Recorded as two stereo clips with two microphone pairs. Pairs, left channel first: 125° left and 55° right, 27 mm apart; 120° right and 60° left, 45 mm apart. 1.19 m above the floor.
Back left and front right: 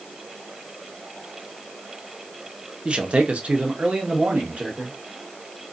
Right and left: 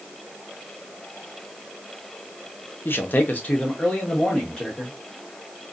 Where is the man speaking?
95° right, 0.6 m; by 5.0 s 45° right, 1.6 m.